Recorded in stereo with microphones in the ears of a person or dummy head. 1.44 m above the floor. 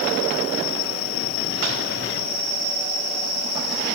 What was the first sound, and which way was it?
Only background noise.